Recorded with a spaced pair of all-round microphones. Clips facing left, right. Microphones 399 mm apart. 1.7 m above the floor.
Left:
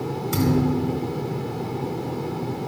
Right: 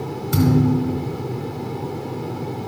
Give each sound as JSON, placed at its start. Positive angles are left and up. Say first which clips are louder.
{"t": 0.3, "sound": "a thud", "louder": "right 4 dB", "side_deg": -25, "distance_m": 4.5}